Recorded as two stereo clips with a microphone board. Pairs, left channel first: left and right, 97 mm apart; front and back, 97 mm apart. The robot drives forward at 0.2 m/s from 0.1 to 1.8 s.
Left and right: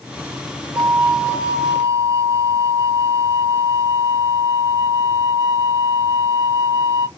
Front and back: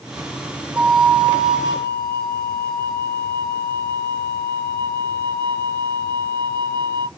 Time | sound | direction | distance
0.8 | a flute | 140° right | 0.9 m